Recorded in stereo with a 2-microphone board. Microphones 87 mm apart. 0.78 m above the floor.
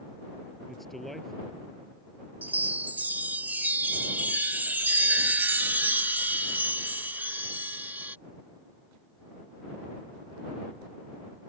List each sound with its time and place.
0.7 s a man speaking: centre (ahead or behind)
2.4 s a chime: 20° right (ahead or behind)